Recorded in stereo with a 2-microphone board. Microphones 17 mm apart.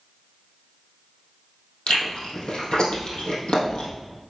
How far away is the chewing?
About 2.5 m.